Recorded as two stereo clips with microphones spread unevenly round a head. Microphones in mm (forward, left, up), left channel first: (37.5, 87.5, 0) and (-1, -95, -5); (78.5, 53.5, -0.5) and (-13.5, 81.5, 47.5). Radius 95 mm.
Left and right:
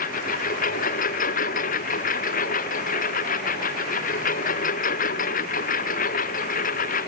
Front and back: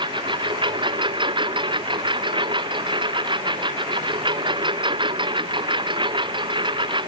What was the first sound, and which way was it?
A lawn mower, 130° left.